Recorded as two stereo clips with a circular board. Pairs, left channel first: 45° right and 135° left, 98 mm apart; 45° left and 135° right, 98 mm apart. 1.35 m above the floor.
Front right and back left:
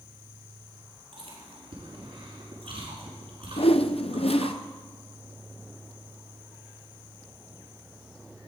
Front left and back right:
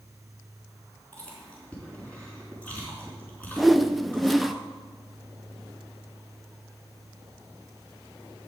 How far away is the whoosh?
About 0.5 m.